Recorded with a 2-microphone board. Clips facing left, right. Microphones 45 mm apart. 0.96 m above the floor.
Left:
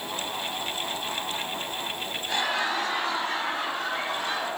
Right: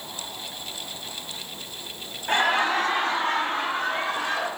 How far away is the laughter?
About 2.5 m.